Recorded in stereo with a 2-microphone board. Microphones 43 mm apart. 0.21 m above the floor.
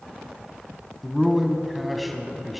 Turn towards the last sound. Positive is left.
turn(degrees=0)  # may be behind; listen again after turning